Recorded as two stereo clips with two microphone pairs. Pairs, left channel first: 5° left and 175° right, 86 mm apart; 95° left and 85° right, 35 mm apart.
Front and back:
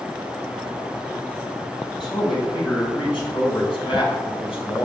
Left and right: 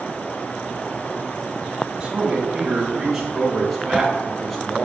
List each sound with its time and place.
2.0 s a man speaking: 20° right, 3 m; by 4.8 s 5° left, 4 m